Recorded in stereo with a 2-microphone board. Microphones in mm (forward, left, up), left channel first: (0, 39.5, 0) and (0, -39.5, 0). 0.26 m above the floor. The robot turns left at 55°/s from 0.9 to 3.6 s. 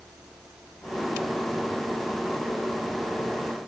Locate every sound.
Only background noise.